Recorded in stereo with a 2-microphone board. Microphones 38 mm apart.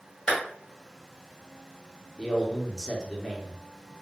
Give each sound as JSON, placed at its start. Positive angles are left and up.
{"t": 0.3, "sound": "a clap", "side_deg": 25, "distance_m": 1.6}
{"t": 2.2, "sound": "a man speaking", "side_deg": 5, "distance_m": 0.7}